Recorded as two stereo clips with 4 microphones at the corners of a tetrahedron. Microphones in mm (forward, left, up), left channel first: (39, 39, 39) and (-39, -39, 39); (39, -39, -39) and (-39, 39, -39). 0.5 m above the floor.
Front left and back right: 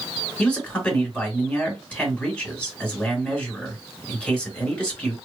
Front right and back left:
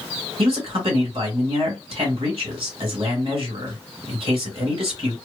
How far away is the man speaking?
About 2.5 m.